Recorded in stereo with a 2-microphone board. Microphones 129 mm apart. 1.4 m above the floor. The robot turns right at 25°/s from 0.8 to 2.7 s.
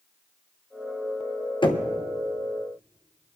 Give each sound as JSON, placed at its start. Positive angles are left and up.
{"t": 1.6, "sound": "knocking", "side_deg": 40, "distance_m": 1.1}